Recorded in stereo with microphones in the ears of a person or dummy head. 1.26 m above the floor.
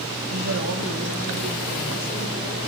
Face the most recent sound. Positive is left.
turn(degrees=-40)  # may be behind; listen again after turning